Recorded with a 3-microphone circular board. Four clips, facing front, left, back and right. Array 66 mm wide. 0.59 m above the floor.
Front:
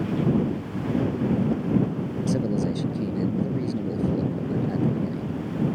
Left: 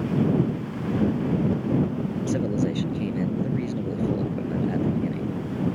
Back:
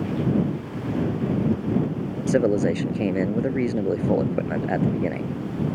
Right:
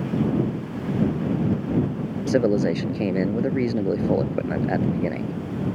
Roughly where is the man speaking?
Behind right.